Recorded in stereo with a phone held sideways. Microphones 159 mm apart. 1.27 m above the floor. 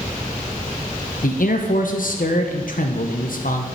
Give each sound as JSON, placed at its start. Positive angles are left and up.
{"t": 1.2, "sound": "a man speaking", "side_deg": 65, "distance_m": 1.0}